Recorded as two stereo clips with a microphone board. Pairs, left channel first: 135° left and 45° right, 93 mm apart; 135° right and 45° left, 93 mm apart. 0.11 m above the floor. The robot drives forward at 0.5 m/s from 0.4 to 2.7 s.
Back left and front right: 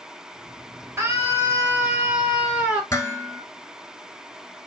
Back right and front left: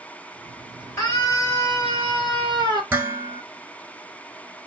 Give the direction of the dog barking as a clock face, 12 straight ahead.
I don't hear a dog barking.